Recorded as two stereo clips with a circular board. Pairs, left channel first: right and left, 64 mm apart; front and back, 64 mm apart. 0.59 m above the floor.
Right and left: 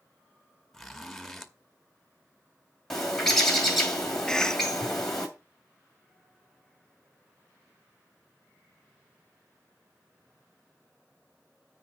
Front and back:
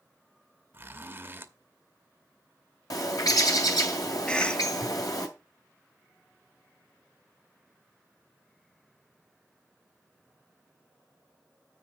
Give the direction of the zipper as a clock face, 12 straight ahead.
6 o'clock.